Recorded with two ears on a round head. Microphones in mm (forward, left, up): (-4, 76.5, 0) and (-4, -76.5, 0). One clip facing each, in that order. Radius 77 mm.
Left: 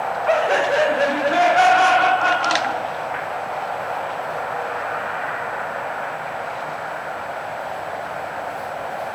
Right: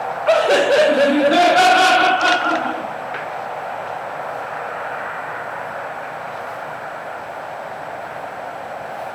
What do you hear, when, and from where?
0.3 s laughter: 45° right (ahead or behind), 0.6 m